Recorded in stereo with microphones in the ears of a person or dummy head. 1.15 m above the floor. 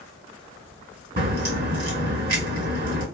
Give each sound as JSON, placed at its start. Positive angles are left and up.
{"t": 1.2, "sound": "a crack", "side_deg": -50, "distance_m": 2.0}